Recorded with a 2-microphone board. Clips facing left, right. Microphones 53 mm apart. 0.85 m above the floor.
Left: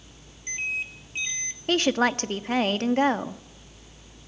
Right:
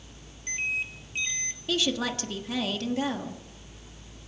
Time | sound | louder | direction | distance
1.7 | a woman speaking | left 6 dB | 50° left (ahead or behind) | 1.3 m